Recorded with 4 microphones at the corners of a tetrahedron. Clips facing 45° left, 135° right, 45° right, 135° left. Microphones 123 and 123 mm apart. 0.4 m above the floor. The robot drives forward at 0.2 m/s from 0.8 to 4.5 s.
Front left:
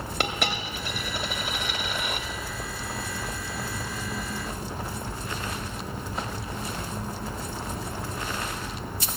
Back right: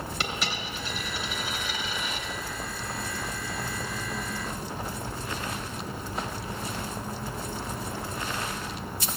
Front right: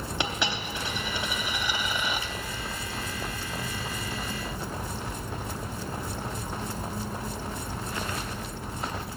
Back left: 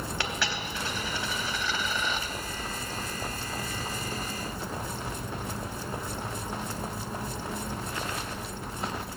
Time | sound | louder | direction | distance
0.2 | a dropped coin | front left 7 dB, front right 4 dB | 25° left | 1.0 m